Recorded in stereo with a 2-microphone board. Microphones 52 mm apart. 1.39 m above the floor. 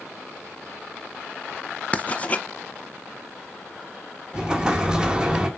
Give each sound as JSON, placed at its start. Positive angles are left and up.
{"t": 1.9, "sound": "writing", "side_deg": 30, "distance_m": 0.5}
{"t": 4.3, "sound": "an explosion", "side_deg": -15, "distance_m": 1.2}